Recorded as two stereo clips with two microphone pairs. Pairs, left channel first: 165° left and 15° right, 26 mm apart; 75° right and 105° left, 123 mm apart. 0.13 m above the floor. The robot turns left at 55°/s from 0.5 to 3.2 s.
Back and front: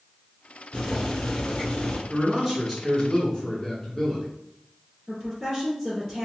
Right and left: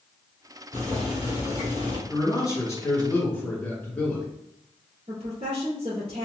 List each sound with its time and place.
0.7 s boiling: 150° right, 1.8 m; by 2.0 s 140° left, 1.8 m
2.1 s a man speaking: 75° right, 1.3 m; by 4.2 s 135° right, 1.3 m
5.1 s a woman speaking: 75° left, 1.9 m